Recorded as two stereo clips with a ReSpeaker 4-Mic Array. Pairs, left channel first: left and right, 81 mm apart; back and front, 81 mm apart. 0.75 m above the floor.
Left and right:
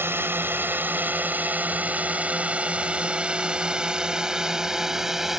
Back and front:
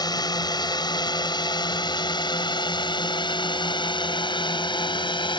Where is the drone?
150° right; by 5.4 s 175° right.